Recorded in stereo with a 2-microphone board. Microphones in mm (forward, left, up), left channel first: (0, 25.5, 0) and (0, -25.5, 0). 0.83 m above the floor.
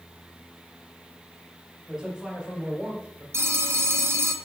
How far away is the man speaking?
About 3.5 m.